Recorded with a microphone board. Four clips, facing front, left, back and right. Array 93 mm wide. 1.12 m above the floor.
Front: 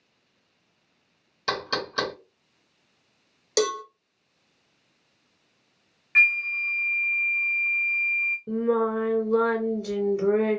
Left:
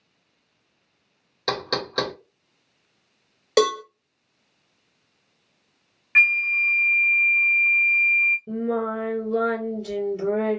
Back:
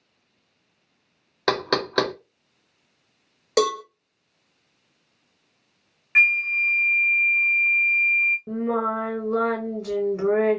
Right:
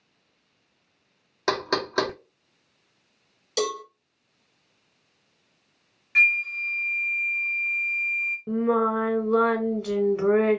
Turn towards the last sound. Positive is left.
turn(degrees=-120)